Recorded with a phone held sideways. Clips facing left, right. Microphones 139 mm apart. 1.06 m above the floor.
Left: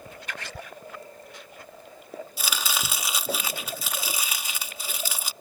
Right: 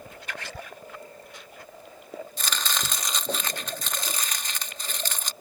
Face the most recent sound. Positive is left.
turn(degrees=10)  # may be behind; listen again after turning